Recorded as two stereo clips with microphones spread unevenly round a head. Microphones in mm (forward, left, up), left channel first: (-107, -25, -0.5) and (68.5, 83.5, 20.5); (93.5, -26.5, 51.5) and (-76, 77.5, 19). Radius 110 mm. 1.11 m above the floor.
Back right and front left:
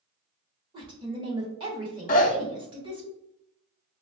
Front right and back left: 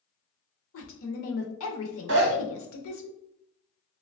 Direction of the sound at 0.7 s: 40° right.